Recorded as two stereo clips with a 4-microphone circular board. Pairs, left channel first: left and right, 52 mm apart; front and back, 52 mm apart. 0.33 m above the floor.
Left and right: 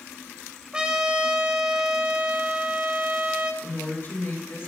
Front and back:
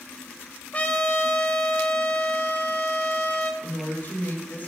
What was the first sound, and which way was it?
A trumpet, 30° right.